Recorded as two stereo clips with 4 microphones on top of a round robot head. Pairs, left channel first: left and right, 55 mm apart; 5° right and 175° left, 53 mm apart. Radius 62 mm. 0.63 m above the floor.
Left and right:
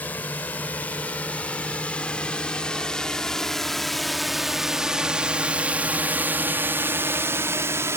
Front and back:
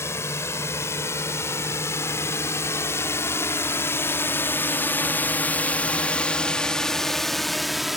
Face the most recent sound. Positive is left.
turn(degrees=-95)